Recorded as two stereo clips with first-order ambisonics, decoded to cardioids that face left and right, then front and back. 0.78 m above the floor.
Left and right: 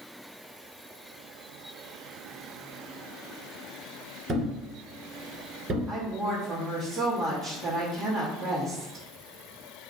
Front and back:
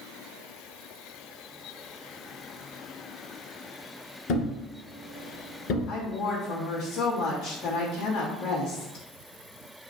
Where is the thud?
20° right, 1.4 m.